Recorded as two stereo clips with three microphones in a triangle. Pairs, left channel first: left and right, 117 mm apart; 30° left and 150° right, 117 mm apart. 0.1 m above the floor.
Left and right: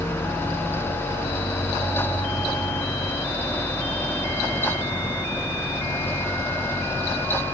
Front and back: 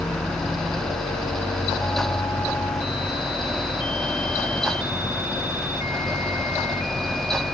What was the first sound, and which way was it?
Only background noise.